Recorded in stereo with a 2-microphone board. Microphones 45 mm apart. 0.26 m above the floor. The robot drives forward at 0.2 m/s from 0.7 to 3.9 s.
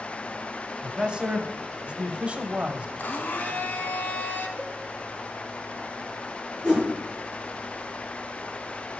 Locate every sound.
0.8 s a man speaking: 25° right (ahead or behind), 1.3 m; by 2.9 s 30° right (ahead or behind), 1.1 m
3.0 s a blender: 50° left (ahead or behind), 1.0 m; by 4.5 s 45° left (ahead or behind), 1.1 m
4.6 s a cowbell: 35° left (ahead or behind), 5 m
6.6 s a whoosh: 25° left (ahead or behind), 6 m